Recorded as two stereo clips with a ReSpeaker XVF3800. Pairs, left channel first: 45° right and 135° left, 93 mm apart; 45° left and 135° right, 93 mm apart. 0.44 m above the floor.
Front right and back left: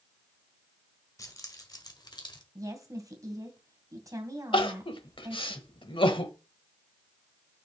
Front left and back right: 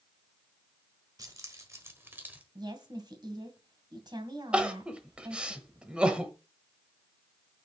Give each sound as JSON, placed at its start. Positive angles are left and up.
{"t": 1.2, "sound": "keys jangling", "azimuth_deg": -90, "distance_m": 1.6}
{"t": 2.5, "sound": "a woman speaking", "azimuth_deg": -175, "distance_m": 2.0}
{"t": 4.5, "sound": "crying", "azimuth_deg": -55, "distance_m": 1.0}